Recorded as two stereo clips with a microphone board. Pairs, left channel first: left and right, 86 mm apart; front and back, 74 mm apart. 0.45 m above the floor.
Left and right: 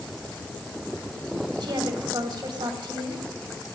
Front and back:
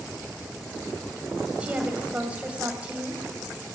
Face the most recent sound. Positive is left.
turn(degrees=-110)